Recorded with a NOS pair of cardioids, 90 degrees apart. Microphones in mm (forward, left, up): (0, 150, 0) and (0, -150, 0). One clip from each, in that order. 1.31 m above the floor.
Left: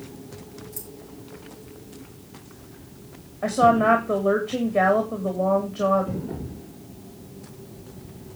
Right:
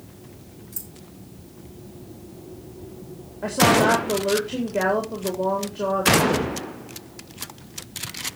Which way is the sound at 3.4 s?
10° left.